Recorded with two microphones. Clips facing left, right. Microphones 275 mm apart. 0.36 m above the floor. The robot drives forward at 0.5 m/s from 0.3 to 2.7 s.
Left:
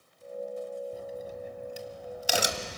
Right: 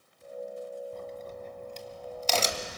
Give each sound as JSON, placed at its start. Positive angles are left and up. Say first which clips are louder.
{"t": 0.9, "sound": "a crack", "louder": "left 2 dB", "side_deg": 10, "distance_m": 1.7}